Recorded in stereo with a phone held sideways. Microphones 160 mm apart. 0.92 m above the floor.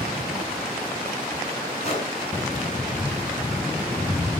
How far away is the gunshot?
About 4 m.